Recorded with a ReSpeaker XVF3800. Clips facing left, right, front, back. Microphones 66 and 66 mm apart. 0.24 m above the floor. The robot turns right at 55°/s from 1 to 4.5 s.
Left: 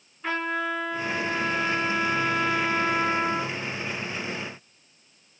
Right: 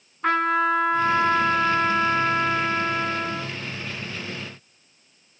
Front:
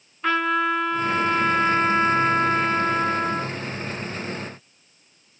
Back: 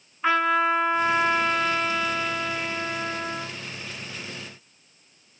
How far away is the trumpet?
About 3.5 m.